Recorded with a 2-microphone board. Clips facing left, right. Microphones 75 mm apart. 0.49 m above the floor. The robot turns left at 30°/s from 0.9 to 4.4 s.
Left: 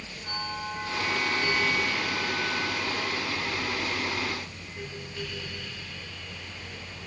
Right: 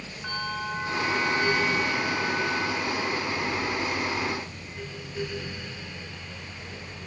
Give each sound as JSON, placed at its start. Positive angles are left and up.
{"t": 0.2, "sound": "a bell", "azimuth_deg": -110, "distance_m": 5.5}